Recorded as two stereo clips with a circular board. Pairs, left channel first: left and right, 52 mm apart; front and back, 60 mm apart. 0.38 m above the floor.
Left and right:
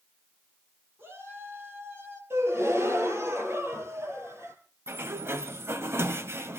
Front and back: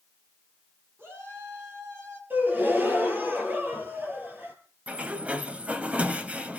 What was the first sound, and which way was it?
A shout, 130° right.